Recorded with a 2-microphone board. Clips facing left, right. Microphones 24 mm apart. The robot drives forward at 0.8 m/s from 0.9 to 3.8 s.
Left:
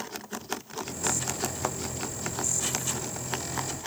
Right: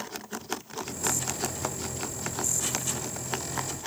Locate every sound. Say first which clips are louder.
1.6 s a thud: left 5 dB; 10° left (ahead or behind)